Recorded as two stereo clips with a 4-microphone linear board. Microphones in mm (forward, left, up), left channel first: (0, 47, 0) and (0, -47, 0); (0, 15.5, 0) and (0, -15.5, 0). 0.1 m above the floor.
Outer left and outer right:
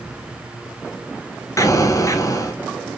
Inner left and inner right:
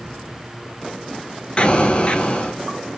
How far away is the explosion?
About 0.7 m.